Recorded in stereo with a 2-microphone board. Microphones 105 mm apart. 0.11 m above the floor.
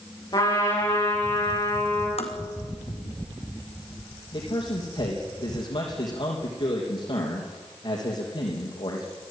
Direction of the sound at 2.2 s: 80° left.